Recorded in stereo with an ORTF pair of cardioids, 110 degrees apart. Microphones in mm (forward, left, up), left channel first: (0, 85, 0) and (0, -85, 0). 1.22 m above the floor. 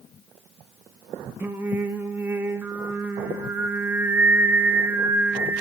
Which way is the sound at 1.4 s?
15° right.